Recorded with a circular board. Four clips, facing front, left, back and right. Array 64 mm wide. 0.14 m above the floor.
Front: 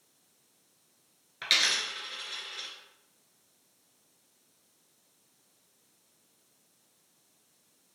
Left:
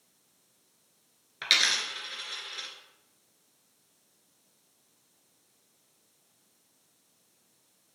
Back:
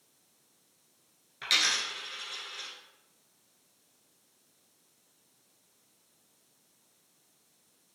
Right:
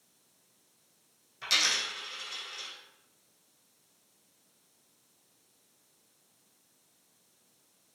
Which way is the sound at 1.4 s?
75° left.